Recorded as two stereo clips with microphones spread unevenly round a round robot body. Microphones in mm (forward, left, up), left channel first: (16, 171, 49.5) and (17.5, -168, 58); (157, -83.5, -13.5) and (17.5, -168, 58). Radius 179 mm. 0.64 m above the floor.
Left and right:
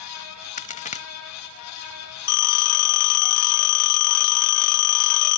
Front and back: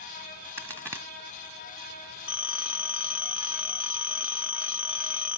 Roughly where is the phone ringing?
Behind left.